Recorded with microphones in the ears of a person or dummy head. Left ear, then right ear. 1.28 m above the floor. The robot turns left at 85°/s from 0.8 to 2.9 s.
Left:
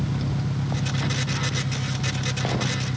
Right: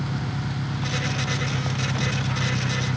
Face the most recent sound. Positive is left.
turn(degrees=-150)